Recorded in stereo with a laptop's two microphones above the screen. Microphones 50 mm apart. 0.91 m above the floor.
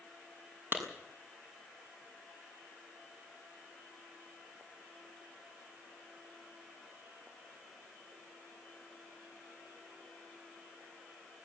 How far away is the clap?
About 6.5 m.